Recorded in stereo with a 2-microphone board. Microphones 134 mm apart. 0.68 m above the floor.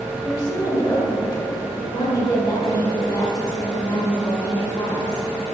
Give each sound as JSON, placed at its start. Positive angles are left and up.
{"t": 0.2, "sound": "a woman speaking", "side_deg": 30, "distance_m": 1.8}